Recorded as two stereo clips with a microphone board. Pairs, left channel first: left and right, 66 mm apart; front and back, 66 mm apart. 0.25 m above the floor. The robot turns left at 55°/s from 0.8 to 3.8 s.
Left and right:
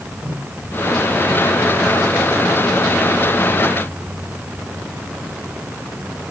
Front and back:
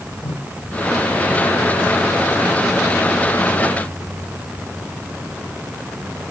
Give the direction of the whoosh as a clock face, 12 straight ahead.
1 o'clock.